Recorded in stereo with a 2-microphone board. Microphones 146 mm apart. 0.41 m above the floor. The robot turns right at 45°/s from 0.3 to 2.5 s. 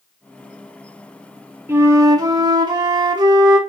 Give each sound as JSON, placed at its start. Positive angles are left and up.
{"t": 1.7, "sound": "a flute", "azimuth_deg": -150, "distance_m": 0.9}